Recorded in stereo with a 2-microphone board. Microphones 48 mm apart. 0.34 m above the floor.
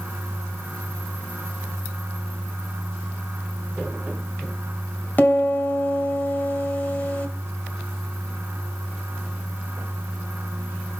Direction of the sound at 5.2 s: 40° left (ahead or behind).